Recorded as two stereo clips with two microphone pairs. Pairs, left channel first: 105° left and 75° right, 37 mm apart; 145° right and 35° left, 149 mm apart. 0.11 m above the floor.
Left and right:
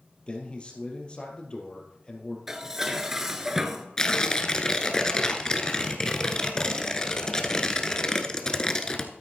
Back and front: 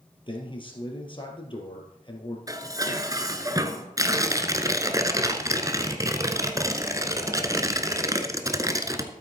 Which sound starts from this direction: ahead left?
Tearing paper, at 4.0 s.